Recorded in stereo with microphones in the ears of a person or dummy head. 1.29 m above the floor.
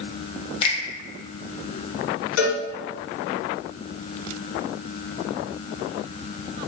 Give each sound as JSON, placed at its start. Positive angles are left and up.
{"t": 0.6, "sound": "a finger snap", "side_deg": 30, "distance_m": 1.0}
{"t": 2.4, "sound": "a cowbell", "side_deg": 85, "distance_m": 1.2}